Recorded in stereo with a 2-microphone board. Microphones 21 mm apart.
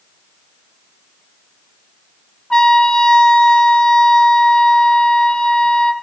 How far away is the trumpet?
About 0.7 m.